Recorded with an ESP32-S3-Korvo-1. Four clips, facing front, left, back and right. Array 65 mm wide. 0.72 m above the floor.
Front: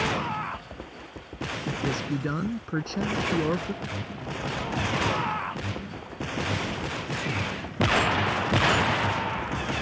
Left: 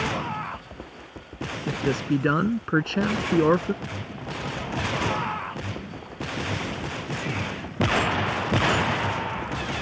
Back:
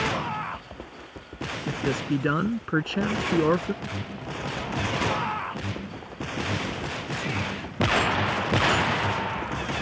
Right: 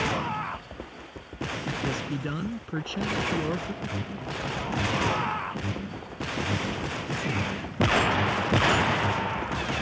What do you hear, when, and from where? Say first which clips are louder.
1.7 s a man speaking: left 8 dB, back 3 dB; 110° left
3.8 s an alarm: right 1 dB, even; 115° right